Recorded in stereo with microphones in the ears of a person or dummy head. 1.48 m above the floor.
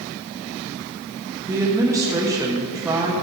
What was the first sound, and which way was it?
A woman speaking, 15° right (ahead or behind).